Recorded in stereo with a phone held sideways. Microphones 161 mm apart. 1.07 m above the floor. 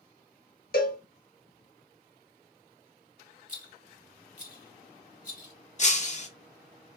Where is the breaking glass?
45° left (ahead or behind), 0.5 m.